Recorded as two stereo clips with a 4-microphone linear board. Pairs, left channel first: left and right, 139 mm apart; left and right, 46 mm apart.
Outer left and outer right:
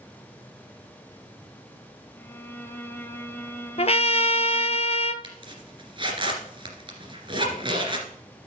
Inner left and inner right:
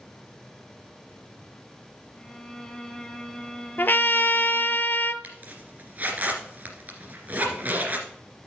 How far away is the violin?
About 1.0 m.